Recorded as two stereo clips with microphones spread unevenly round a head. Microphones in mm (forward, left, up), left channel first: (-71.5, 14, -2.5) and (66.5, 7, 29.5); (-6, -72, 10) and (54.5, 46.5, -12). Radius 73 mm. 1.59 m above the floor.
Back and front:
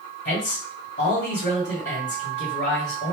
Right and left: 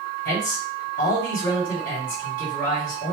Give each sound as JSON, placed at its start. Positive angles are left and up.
{"t": 0.2, "sound": "a man speaking", "azimuth_deg": -145, "distance_m": 1.8}